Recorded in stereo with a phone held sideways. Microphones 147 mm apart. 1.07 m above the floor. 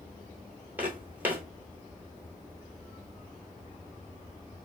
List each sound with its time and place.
0.8 s footsteps: 10° right (ahead or behind), 1.1 m